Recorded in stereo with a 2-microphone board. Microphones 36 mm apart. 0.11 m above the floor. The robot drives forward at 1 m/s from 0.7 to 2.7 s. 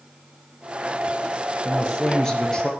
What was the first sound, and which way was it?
A man speaking, 20° left (ahead or behind).